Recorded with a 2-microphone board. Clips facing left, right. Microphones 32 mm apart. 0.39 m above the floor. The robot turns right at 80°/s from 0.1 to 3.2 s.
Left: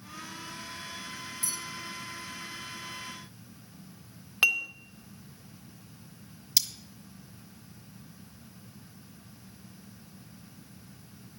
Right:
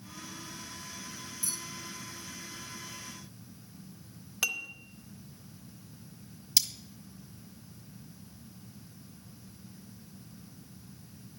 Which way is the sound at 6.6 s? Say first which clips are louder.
Even; 5° left (ahead or behind).